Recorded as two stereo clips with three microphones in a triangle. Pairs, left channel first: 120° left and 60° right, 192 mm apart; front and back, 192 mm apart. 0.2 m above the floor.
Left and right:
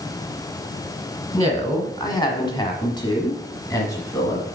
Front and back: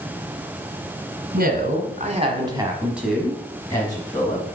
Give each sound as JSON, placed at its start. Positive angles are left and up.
{"t": 1.3, "sound": "a woman speaking", "azimuth_deg": -175, "distance_m": 1.9}